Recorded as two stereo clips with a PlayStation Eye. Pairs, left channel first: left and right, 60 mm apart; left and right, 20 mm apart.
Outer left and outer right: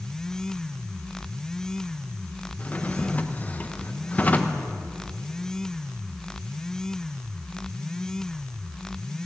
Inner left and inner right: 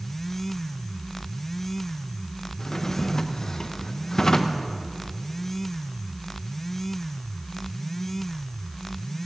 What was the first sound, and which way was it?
A drawer, 25° left (ahead or behind).